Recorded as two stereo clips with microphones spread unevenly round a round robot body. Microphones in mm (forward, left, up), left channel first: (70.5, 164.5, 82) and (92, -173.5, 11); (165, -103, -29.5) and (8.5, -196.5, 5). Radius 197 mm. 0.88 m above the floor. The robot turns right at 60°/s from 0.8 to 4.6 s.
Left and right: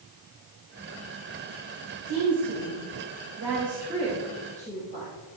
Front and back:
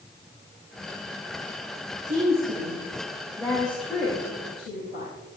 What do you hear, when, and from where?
2.1 s a woman speaking: 130° right, 3.5 m; by 5.1 s 20° left, 3.5 m